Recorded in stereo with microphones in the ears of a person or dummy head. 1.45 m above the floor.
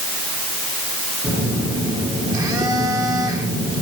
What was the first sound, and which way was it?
A phone buzzing, 20° right (ahead or behind).